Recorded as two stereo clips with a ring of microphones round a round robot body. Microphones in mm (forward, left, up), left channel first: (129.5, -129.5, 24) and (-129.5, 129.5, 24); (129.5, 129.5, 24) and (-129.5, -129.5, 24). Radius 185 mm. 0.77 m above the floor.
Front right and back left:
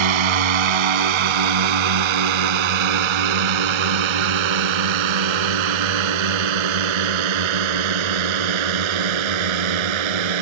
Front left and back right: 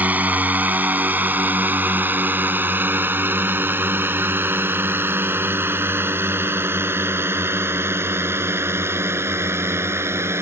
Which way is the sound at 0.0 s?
140° left.